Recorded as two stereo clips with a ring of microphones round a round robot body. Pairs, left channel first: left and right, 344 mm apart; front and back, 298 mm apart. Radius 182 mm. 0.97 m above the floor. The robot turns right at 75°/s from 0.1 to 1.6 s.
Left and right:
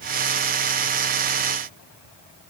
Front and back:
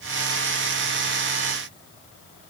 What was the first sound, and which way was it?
Only background noise.